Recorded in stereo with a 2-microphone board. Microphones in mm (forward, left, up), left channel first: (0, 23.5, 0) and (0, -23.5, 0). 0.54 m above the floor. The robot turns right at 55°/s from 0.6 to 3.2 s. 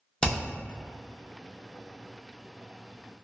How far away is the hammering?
About 0.6 m.